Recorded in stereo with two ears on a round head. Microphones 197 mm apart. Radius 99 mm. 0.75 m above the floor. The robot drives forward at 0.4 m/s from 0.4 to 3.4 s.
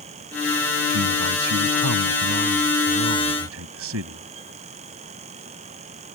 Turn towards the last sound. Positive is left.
turn(degrees=-75)  # may be behind; listen again after turning